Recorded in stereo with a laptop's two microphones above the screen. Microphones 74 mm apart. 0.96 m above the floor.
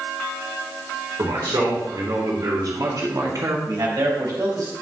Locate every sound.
1.2 s a man speaking: 65° right (ahead or behind), 3.5 m; by 3.6 s 45° right (ahead or behind), 1.5 m
3.7 s a man speaking: 60° right (ahead or behind), 4 m